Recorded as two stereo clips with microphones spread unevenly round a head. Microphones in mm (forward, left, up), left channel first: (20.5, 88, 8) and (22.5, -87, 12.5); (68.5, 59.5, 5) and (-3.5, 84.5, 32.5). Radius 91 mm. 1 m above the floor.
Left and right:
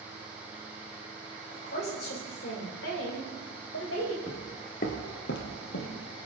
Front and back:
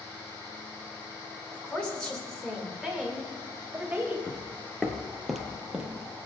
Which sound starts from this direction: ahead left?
A woman speaking, at 1.5 s.